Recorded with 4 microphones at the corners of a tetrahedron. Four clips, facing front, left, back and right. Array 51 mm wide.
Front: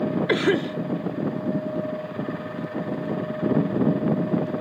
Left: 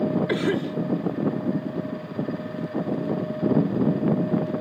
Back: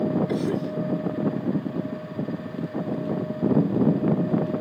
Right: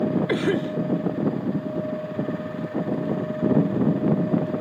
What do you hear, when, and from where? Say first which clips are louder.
0.3 s a cough: right 1 dB, front 5 dB; 5° right